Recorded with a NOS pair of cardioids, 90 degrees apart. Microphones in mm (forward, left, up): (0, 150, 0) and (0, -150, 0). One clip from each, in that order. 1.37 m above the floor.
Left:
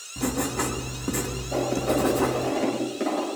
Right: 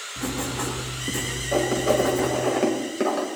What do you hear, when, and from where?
0.2 s writing: 25° left, 3 m
1.5 s writing: 45° right, 6 m